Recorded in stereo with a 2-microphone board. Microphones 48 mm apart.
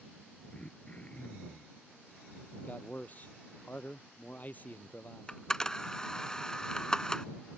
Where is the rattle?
No rattle in this recording.